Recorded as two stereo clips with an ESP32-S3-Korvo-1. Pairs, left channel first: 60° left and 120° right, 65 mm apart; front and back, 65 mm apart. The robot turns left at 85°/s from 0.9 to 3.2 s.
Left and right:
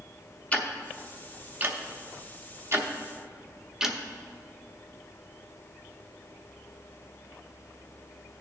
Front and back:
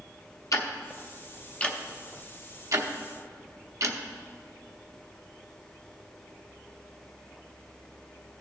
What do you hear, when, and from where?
0.5 s ticking: 5° right, 0.8 m; by 4.0 s 160° left, 0.8 m